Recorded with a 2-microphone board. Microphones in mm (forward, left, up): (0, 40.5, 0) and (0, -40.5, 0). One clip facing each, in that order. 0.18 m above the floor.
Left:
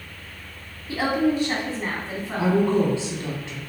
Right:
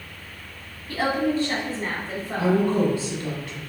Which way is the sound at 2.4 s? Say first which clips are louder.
Left 1 dB; 25° left (ahead or behind).